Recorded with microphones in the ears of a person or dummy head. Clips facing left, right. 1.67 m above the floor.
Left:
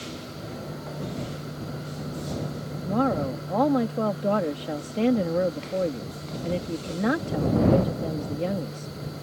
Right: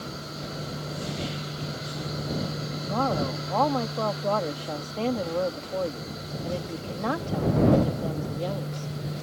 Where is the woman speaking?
25° left (ahead or behind).